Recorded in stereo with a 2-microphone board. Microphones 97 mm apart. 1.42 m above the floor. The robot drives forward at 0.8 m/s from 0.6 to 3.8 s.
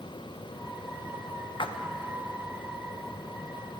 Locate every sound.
1.6 s a splash: 60° left (ahead or behind), 0.7 m; by 1.8 s 55° left (ahead or behind), 0.7 m